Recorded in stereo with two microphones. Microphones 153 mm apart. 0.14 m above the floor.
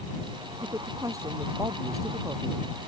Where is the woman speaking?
20° right (ahead or behind).